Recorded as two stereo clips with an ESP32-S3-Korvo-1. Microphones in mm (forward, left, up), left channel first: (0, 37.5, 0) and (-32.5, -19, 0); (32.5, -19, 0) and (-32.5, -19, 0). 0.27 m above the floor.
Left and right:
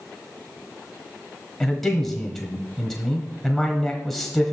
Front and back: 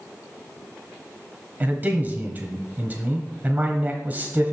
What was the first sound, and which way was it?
A man speaking, 145° left.